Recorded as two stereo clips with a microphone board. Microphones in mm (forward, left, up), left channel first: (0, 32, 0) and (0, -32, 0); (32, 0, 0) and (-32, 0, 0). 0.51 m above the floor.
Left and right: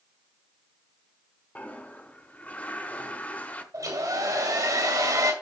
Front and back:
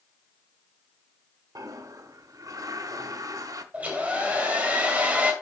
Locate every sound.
1.6 s a toilet flushing: 155° left, 1.0 m
3.7 s a hair dryer: 115° right, 2.5 m